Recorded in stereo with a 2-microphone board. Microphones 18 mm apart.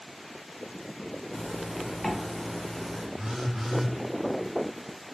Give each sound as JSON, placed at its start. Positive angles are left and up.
{"t": 1.3, "sound": "a zipper", "side_deg": 25, "distance_m": 0.7}
{"t": 3.2, "sound": "a phone buzzing", "side_deg": -45, "distance_m": 1.8}